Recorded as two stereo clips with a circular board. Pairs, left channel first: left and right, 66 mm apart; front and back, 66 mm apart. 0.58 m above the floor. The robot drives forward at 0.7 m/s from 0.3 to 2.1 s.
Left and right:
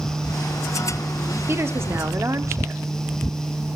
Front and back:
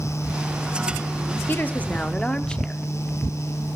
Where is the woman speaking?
45° right, 1.3 m; by 2.8 s 70° right, 1.1 m.